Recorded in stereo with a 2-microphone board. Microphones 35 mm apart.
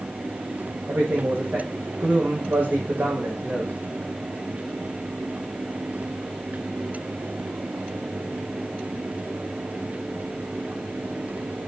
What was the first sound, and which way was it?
A man speaking, 65° right (ahead or behind).